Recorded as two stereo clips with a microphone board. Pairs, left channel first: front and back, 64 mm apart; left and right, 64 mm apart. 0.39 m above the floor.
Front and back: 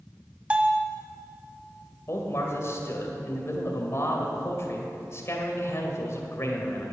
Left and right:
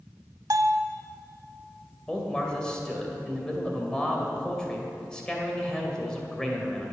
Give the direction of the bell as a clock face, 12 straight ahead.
4 o'clock.